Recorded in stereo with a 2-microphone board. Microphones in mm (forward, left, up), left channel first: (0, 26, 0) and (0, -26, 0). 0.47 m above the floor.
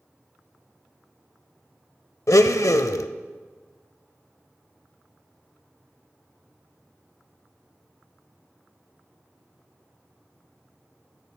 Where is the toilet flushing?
I don't hear a toilet flushing.